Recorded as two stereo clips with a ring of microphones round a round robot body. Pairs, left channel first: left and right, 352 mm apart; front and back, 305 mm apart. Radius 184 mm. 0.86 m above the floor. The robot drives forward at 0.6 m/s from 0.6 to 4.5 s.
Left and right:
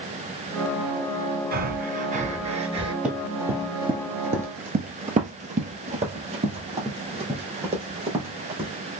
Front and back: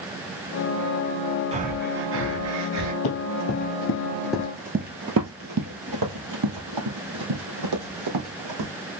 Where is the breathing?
130° right, 0.8 m; by 2.9 s 165° right, 1.4 m.